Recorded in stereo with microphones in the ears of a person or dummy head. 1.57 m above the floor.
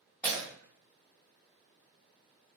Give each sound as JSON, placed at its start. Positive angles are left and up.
{"t": 0.2, "sound": "breaking glass", "side_deg": 10, "distance_m": 1.5}